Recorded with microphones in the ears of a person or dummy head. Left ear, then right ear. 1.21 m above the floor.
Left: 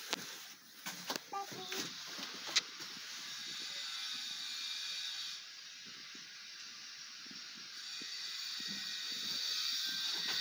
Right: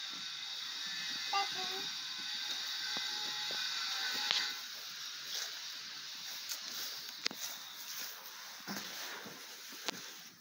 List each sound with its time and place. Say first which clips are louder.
1.3 s a child speaking: right 6 dB; 80° right